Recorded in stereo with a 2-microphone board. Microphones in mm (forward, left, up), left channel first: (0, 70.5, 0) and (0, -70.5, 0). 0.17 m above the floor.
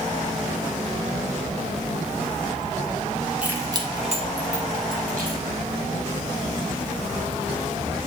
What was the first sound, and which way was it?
Keys jangling, 10° right (ahead or behind).